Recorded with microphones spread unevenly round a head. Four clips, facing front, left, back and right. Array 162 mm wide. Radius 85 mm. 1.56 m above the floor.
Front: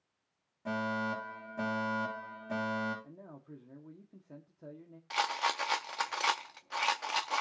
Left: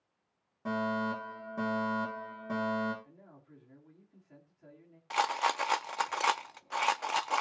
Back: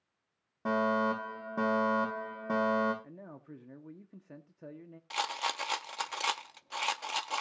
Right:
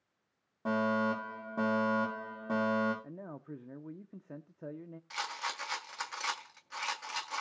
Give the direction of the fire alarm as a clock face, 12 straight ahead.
5 o'clock.